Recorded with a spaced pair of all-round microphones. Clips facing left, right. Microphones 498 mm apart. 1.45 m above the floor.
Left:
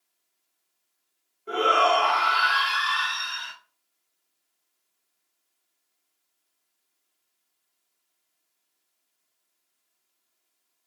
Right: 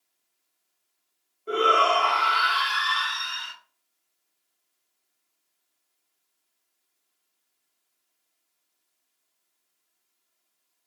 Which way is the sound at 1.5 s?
10° left (ahead or behind).